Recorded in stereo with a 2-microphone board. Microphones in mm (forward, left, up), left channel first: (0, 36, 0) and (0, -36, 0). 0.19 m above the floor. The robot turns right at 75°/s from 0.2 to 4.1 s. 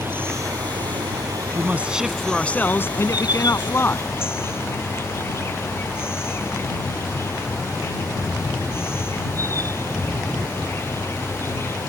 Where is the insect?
145° right; by 11.9 s 145° left.